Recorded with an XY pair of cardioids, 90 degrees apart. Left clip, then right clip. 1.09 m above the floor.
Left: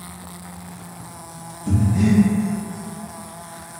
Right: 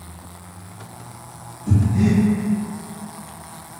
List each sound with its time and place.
1.7 s breathing: 35° left, 1.2 m